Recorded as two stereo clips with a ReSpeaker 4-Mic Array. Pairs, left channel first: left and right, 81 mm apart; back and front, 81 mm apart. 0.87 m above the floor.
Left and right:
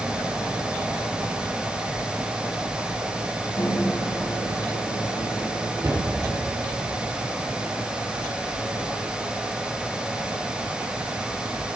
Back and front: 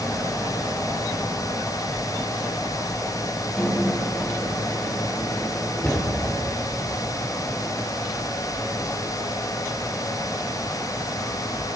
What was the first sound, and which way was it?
A microwave, 90° left.